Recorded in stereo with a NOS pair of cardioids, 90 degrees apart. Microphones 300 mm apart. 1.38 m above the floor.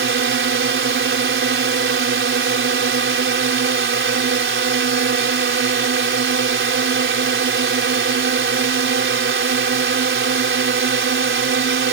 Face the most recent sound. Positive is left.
turn(degrees=-40)